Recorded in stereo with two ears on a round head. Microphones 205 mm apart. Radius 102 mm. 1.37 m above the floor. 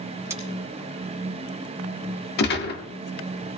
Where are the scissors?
15° right (ahead or behind), 3.5 m.